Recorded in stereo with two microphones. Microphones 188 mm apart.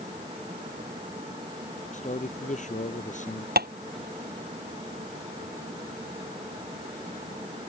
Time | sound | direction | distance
1.9 | a man speaking | 40° left (ahead or behind) | ?
3.6 | tapping | 55° right (ahead or behind) | ?